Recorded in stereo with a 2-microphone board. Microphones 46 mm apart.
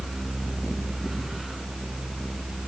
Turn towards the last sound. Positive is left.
No sound to turn to.